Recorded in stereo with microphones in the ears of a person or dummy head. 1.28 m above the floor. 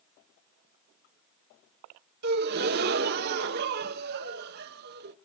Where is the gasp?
45° right (ahead or behind), 0.7 m.